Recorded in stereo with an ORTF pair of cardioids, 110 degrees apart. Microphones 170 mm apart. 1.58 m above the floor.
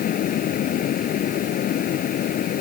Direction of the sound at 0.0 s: 55° left.